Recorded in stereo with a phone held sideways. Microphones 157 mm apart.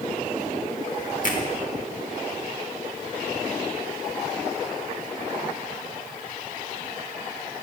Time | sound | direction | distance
1.2 | a finger snap | 60° left (ahead or behind) | 1.6 m